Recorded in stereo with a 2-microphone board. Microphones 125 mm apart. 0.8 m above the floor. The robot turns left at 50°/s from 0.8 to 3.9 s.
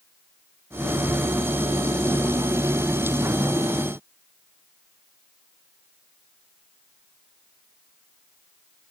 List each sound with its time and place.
Only background noise.